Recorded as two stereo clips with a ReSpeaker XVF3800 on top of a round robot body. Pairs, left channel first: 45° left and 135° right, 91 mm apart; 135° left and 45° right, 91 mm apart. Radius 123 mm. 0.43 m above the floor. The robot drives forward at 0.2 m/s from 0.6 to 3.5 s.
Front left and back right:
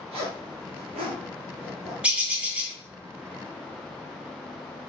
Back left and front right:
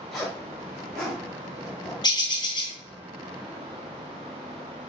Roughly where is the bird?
Behind left.